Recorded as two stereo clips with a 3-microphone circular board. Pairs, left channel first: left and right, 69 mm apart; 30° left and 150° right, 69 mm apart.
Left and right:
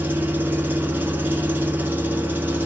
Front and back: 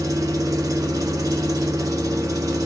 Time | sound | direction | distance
0.0 | an engine running | 145° right | 0.8 m